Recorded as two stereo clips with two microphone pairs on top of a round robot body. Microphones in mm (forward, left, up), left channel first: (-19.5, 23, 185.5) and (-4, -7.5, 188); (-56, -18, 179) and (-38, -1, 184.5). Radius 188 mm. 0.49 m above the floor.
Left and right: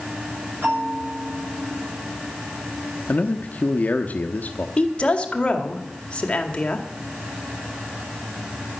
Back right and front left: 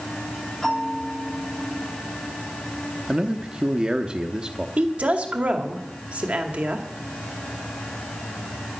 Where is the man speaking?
100° left, 1.0 m.